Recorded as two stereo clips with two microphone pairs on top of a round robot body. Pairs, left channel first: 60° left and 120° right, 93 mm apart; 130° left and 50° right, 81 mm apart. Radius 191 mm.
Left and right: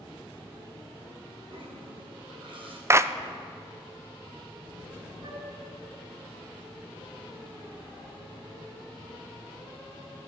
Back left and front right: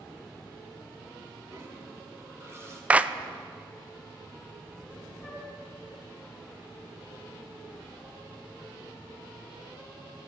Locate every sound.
1.5 s a toilet flushing: 95° right, 2 m
2.9 s a clap: 60° right, 0.6 m
5.2 s a flute: 140° right, 2.5 m